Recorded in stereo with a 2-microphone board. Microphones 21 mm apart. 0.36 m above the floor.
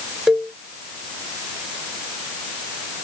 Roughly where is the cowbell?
Right.